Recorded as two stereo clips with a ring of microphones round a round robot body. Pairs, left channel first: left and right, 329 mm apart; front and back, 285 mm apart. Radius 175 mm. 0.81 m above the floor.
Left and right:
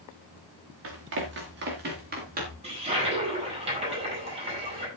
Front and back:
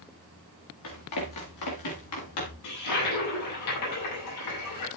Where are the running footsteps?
40° right, 5.5 m; by 2.5 s 25° right, 7 m.